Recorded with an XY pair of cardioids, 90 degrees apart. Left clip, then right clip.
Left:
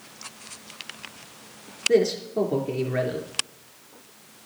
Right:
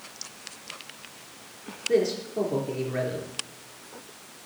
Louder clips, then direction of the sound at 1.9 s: Left 3 dB; 40° left.